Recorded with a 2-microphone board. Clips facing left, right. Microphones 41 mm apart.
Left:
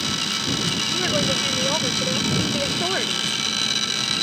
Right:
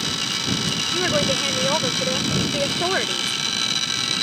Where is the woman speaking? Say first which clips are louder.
Right 3 dB; 15° right (ahead or behind).